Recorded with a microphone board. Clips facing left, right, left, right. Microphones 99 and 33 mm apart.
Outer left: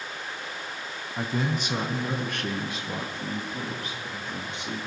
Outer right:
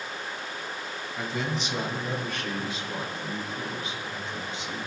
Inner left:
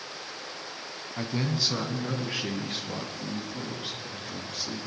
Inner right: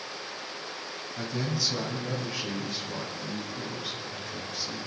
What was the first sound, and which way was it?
A man speaking, 40° left (ahead or behind).